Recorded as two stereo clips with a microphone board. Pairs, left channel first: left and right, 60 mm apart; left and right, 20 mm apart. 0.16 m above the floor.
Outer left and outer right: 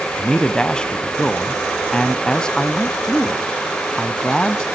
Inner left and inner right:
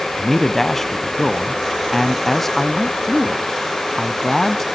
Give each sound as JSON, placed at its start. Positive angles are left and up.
{"t": 0.2, "sound": "a man speaking", "side_deg": 15, "distance_m": 1.1}